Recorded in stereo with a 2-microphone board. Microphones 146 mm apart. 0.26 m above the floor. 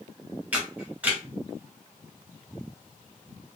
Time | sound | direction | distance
0.5 | a camera shutter | 10° right (ahead or behind) | 1.5 m